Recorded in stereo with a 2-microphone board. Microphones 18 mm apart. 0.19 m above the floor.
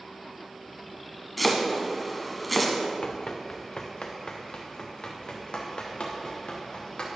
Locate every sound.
1.4 s chopping: 10° left (ahead or behind), 1.5 m
3.0 s running footsteps: 85° left, 0.9 m; by 7.1 s 75° left (ahead or behind), 3.5 m